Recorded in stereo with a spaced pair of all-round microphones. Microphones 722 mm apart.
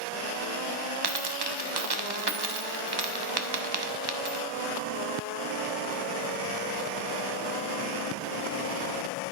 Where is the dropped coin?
35° right (ahead or behind), 0.7 m.